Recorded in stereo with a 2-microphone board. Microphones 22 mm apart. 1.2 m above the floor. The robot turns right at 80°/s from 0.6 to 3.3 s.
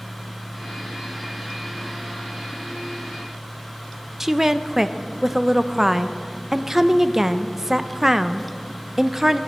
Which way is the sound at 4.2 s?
15° right (ahead or behind).